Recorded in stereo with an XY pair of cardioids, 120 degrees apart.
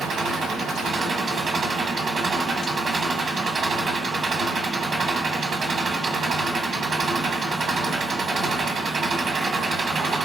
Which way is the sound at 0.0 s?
45° right.